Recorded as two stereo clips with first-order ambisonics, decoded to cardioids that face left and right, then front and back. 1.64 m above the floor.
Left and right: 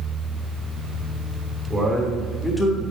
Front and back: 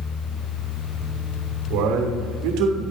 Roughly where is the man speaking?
Behind.